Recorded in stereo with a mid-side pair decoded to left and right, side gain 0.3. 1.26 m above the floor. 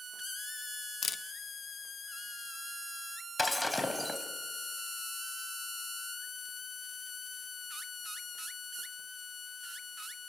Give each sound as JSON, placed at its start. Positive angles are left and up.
{"t": 1.0, "sound": "a camera shutter", "azimuth_deg": 60, "distance_m": 0.9}
{"t": 3.4, "sound": "breaking glass", "azimuth_deg": 20, "distance_m": 4.0}